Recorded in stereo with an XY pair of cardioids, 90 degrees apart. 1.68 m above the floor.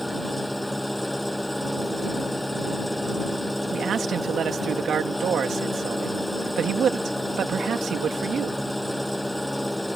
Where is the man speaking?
60° right.